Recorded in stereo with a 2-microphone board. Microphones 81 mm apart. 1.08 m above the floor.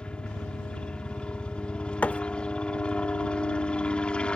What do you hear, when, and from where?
0.0 s a helicopter: 15° left (ahead or behind)
2.0 s a thud: 15° left (ahead or behind)